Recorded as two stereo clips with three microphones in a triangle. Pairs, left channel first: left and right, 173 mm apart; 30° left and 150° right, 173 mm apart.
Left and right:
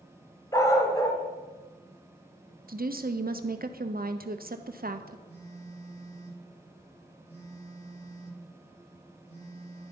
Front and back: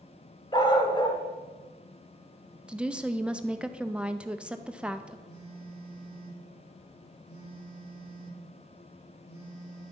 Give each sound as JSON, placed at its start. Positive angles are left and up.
{"t": 0.5, "sound": "a dog barking", "azimuth_deg": 45, "distance_m": 1.3}
{"t": 2.7, "sound": "a woman speaking", "azimuth_deg": -65, "distance_m": 0.7}
{"t": 5.3, "sound": "a phone buzzing", "azimuth_deg": 35, "distance_m": 5.5}